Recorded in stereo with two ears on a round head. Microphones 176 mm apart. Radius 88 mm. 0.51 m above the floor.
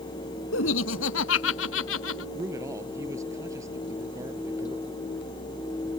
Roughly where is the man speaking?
Centre.